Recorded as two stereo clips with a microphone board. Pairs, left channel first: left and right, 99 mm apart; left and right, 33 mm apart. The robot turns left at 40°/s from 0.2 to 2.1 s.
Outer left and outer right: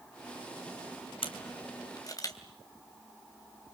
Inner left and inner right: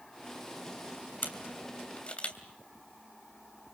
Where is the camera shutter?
65° left (ahead or behind), 2.5 m; by 2.4 s 35° left (ahead or behind), 2.5 m.